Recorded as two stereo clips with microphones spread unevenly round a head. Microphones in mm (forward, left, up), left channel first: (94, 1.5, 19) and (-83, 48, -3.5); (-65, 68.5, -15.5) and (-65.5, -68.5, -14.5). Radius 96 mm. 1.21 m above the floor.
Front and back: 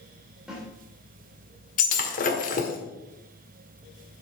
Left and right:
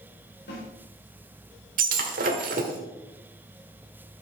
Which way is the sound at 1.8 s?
60° right.